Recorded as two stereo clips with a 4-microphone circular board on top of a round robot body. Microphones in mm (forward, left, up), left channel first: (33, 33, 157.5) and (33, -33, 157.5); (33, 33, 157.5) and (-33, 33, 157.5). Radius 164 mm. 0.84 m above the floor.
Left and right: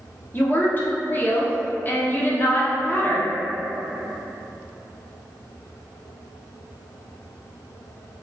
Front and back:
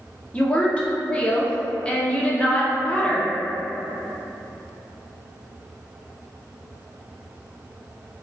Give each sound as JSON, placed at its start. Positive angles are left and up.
{"t": 0.3, "sound": "a woman speaking", "azimuth_deg": 60, "distance_m": 0.7}